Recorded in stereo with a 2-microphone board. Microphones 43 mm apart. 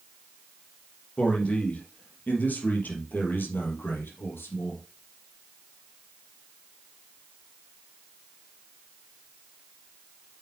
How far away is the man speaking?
About 3 m.